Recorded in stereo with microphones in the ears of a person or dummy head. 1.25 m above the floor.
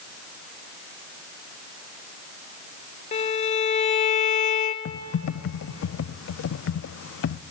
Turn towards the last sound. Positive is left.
turn(degrees=70)  # may be behind; listen again after turning